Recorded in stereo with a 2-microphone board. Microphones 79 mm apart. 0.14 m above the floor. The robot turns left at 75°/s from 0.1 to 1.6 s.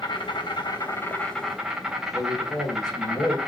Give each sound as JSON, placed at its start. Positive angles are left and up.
{"t": 0.0, "sound": "an insect", "azimuth_deg": 105, "distance_m": 2.0}
{"t": 2.1, "sound": "a man speaking", "side_deg": 60, "distance_m": 5.5}